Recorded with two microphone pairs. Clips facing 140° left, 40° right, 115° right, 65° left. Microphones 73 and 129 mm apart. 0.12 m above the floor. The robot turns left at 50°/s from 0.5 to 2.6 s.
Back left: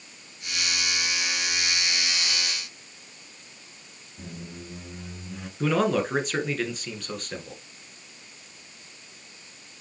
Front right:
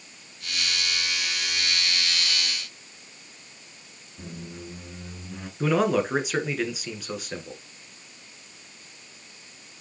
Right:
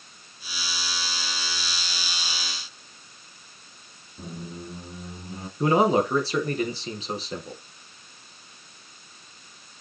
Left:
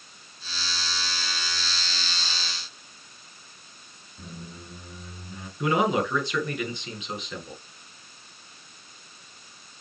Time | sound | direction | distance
4.2 | a squeak | 120° right | 0.8 m
5.6 | a man speaking | 120° right | 1.6 m